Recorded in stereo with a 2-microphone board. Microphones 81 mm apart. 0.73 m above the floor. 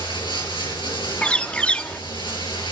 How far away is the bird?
About 1.1 m.